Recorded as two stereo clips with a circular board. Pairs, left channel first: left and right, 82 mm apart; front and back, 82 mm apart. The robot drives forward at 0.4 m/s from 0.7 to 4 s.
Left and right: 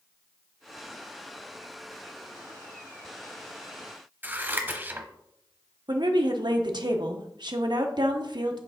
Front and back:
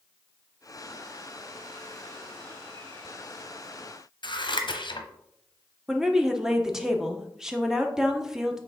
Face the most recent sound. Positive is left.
turn(degrees=-95)